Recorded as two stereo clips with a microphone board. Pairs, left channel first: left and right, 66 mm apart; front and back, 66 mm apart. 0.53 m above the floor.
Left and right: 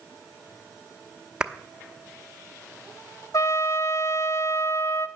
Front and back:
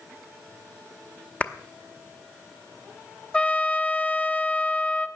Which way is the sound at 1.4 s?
35° right.